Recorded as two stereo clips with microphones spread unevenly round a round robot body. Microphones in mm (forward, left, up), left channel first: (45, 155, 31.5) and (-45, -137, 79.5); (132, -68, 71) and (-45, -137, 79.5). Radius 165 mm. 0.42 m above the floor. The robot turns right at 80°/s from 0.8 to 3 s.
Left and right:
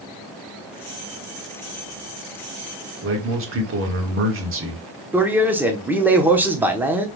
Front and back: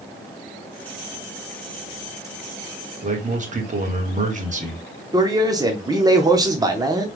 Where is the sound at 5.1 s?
155° left, 0.8 m.